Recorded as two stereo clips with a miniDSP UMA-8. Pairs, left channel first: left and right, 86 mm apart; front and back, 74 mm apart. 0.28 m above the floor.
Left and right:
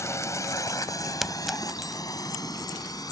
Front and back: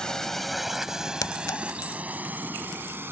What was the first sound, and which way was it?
A drone, 75° left.